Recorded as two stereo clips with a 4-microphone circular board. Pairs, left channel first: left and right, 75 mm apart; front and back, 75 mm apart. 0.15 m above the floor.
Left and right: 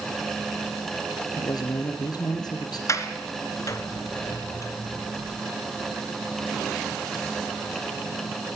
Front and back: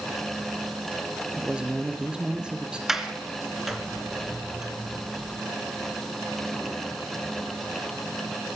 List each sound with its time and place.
1.3 s a man speaking: 105° left, 3.5 m
2.9 s a sliding door: 100° left, 1.8 m